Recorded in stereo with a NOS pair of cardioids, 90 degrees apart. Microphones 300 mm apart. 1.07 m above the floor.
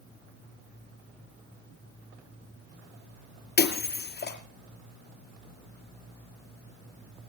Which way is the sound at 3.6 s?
35° left.